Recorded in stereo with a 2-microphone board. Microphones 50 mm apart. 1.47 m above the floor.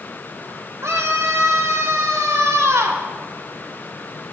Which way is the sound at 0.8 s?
75° right (ahead or behind).